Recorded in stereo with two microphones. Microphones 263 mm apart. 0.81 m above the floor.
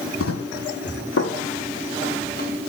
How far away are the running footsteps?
About 1.7 m.